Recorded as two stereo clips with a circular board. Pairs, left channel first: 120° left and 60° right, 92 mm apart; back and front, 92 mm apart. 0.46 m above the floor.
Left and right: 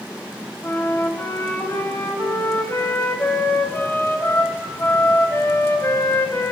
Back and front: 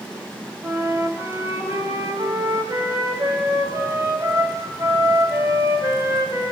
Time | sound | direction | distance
0.6 | a flute | 60° left | 3.5 m